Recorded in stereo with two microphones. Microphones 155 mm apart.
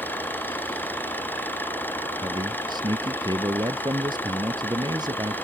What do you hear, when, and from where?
0.0 s an engine running: 10° left (ahead or behind)
2.2 s a man speaking: 25° right (ahead or behind)